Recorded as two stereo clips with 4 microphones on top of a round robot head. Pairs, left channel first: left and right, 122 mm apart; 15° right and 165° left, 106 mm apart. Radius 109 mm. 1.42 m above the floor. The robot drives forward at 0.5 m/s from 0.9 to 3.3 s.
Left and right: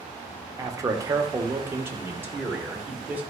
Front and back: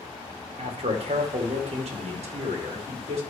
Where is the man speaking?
155° right, 1.2 m; by 3.2 s 165° right, 2.5 m.